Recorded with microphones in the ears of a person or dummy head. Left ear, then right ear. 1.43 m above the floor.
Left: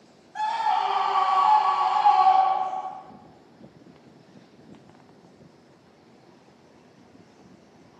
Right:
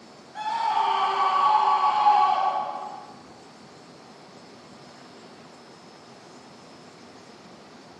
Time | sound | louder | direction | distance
0.3 | a scream | left 1 dB | 25° left (ahead or behind) | 1.0 m